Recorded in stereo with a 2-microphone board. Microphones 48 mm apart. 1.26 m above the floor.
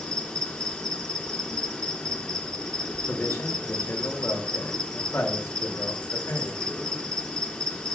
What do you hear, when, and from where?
0.0 s an insect: 20° left (ahead or behind), 1.4 m
3.1 s a man speaking: 75° left (ahead or behind), 2 m